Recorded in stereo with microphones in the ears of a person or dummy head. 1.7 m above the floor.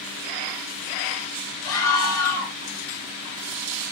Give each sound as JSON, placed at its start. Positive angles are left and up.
{"t": 1.6, "sound": "a scream", "side_deg": 20, "distance_m": 7.0}